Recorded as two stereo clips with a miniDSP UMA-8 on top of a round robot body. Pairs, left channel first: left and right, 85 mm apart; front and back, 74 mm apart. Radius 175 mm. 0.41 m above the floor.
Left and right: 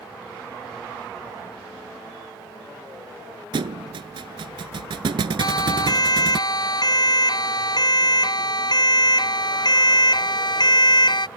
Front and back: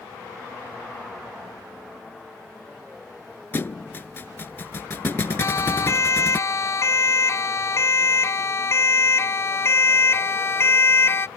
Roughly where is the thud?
Ahead right.